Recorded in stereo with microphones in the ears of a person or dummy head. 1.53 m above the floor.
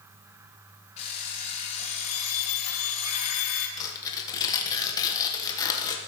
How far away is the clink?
No clink in this recording.